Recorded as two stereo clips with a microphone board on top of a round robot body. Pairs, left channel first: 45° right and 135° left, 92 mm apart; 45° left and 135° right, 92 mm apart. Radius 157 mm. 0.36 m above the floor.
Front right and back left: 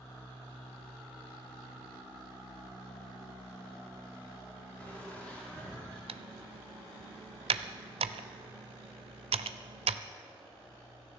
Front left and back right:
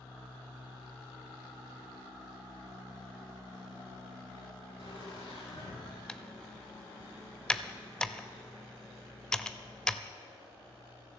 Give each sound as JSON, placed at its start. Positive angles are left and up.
{"t": 4.8, "sound": "laughter", "azimuth_deg": 30, "distance_m": 7.0}
{"t": 6.1, "sound": "typing on a keyboard", "azimuth_deg": 130, "distance_m": 0.6}